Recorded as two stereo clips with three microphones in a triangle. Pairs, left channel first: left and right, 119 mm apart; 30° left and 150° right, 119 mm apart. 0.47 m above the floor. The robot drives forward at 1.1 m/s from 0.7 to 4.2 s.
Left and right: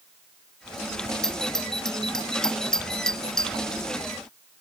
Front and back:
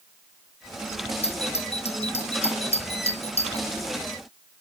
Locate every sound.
1.2 s a doorbell: 5° left